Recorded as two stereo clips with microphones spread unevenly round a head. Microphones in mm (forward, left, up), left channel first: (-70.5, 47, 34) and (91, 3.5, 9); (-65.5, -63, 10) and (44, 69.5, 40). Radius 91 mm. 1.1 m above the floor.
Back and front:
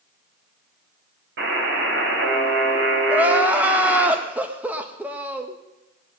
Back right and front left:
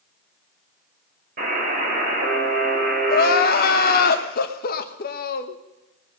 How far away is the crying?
About 1.0 m.